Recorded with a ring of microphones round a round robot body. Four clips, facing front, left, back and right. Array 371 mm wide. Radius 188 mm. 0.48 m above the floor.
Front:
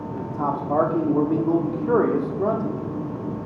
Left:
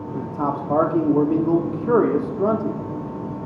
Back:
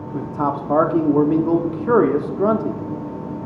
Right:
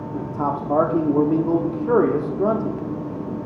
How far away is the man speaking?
About 0.8 m.